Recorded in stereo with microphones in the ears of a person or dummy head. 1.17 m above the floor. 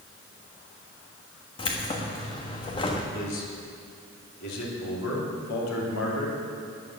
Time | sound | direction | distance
1.6 | keys jangling | 25° left (ahead or behind) | 1.4 m
3.1 | a man speaking | 70° left (ahead or behind) | 3.5 m